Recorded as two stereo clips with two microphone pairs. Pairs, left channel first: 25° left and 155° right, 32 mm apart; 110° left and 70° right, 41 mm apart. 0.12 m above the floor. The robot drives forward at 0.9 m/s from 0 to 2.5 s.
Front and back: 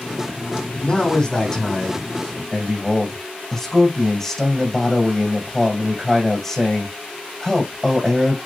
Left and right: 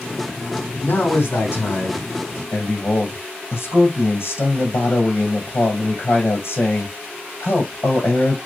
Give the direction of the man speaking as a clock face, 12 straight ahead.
9 o'clock.